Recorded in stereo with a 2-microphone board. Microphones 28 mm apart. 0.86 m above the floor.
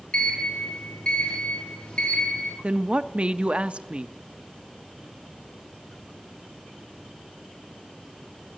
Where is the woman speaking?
40° right (ahead or behind), 0.5 m.